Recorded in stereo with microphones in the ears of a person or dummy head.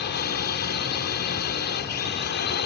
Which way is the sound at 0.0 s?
55° left (ahead or behind).